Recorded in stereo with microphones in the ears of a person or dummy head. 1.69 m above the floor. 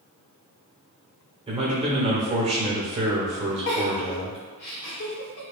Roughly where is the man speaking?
Right.